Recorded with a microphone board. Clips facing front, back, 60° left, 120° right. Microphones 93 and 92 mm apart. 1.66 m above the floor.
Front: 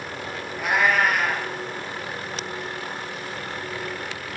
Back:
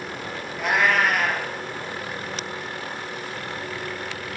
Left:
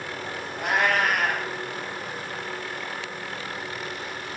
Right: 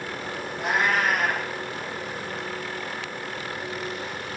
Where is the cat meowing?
90° left, 6 m.